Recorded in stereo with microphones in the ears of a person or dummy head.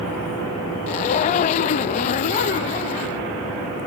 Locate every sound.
0.9 s a zipper: 40° left (ahead or behind)